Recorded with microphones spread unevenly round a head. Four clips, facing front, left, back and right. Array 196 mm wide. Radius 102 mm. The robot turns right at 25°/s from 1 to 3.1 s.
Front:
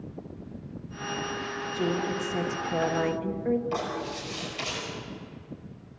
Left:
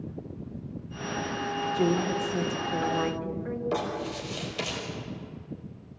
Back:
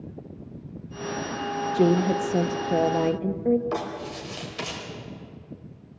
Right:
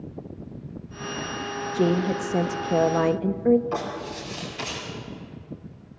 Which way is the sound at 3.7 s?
125° left.